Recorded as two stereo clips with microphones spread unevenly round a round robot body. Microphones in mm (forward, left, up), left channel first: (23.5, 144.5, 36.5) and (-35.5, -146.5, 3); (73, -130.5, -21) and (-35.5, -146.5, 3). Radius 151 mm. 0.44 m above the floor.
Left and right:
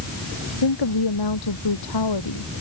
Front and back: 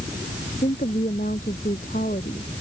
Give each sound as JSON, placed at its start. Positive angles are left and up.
{"t": 0.6, "sound": "a woman speaking", "azimuth_deg": 65}